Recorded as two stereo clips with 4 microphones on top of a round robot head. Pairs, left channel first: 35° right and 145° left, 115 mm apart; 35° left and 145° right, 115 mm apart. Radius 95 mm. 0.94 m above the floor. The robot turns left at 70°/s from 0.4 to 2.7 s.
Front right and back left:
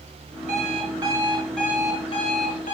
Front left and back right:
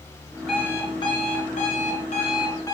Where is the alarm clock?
125° left, 5.5 m; by 2.8 s 30° right, 5.5 m.